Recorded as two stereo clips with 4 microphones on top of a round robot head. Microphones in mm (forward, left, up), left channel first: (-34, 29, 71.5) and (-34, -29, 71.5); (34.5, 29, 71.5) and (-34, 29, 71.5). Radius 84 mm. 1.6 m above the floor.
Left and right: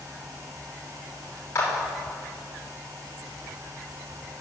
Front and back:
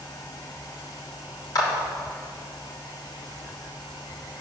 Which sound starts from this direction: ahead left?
A clap, at 1.6 s.